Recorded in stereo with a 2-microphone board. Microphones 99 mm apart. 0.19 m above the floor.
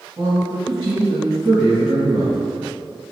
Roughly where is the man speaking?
Right.